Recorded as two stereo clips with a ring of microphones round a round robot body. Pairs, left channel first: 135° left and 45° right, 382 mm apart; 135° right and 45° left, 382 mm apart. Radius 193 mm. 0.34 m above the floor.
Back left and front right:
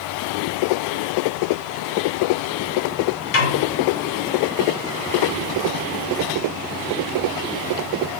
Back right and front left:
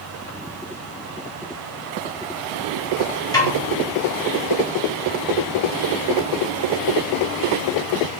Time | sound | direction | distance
3.3 | a snare drum | 145° left | 1.8 m